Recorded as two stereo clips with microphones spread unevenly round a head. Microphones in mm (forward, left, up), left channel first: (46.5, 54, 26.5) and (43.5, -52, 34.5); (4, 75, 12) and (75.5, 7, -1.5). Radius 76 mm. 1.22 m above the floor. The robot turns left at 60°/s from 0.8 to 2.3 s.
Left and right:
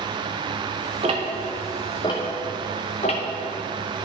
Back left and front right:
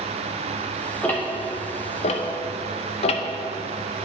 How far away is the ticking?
About 0.6 m.